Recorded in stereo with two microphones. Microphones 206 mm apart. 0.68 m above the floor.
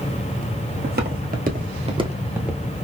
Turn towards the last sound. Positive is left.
turn(degrees=-5)  # may be behind; listen again after turning